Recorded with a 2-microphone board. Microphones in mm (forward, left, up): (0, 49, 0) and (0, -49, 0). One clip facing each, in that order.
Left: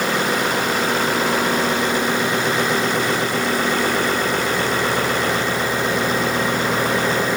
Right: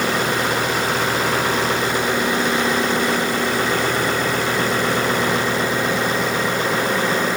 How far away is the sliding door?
I don't hear a sliding door.